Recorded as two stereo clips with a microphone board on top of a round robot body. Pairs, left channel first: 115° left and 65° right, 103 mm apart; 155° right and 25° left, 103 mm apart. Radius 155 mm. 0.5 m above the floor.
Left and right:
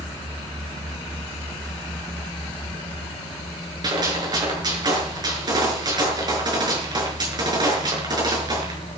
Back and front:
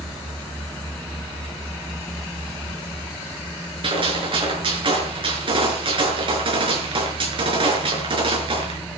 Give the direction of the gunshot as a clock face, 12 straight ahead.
1 o'clock.